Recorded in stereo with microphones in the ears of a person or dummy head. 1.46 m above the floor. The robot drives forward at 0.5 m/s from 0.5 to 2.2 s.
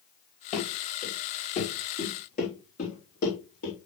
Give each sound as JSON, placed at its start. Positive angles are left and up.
{"t": 0.5, "sound": "running footsteps", "side_deg": 40, "distance_m": 2.5}